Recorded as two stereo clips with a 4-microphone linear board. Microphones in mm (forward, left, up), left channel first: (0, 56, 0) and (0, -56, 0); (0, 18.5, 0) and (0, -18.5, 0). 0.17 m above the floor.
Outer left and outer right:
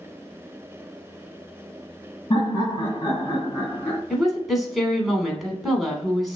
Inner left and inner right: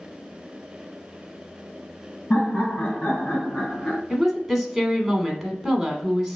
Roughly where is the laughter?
Left.